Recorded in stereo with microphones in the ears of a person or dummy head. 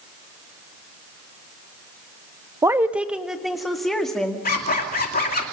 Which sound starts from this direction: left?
A zipper, at 4.5 s.